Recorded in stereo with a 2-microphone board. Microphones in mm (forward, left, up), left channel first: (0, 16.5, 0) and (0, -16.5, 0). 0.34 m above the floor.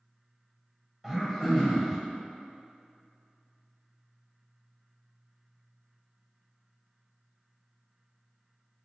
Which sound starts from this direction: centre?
Throat clearing, at 1.0 s.